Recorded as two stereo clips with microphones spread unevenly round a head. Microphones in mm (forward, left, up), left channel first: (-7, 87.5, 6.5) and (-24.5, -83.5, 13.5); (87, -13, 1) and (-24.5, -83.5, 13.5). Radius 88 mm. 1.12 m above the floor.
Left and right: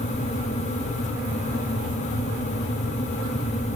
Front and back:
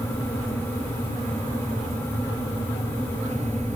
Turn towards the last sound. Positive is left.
No sound to turn to.